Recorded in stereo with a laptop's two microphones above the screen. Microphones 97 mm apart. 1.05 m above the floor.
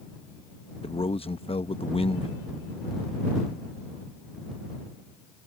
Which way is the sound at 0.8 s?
75° left (ahead or behind).